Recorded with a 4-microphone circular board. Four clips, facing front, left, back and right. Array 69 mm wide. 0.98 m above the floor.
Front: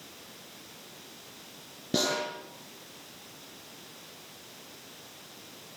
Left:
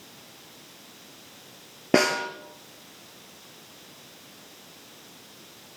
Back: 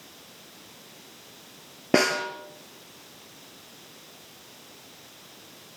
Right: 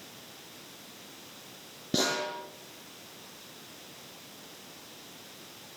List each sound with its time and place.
1.9 s a snare drum: 135° left, 3.5 m